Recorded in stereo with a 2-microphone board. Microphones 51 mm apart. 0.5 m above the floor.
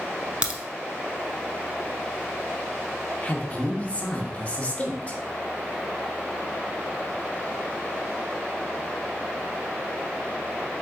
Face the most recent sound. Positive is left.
turn(degrees=25)  # may be behind; listen again after turning